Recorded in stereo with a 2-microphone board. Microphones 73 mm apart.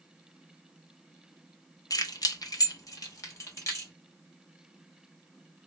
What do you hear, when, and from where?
1.9 s keys jangling: 50° left (ahead or behind), 0.6 m; by 3.9 s 40° left (ahead or behind), 1.5 m